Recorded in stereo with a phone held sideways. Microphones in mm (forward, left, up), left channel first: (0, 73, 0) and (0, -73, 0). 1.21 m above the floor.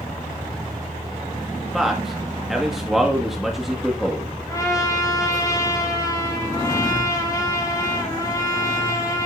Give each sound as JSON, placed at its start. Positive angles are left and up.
{"t": 1.7, "sound": "a man speaking", "side_deg": 0, "distance_m": 1.7}
{"t": 4.5, "sound": "a trumpet", "side_deg": 25, "distance_m": 5.0}